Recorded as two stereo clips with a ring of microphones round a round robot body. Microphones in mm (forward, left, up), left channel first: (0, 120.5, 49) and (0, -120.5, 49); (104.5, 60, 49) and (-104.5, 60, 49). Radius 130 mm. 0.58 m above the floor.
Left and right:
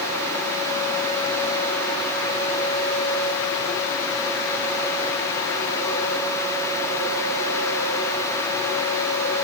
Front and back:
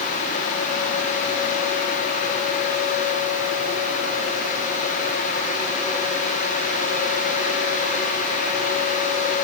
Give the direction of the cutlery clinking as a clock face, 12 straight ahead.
I don't hear cutlery clinking.